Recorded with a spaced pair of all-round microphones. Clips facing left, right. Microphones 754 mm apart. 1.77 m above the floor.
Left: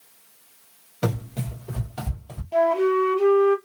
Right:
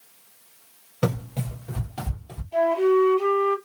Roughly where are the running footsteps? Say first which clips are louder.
Right 1 dB; centre.